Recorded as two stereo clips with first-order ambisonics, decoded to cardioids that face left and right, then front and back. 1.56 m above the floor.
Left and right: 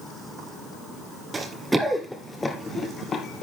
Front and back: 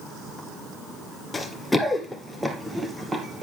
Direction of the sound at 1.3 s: 55° right.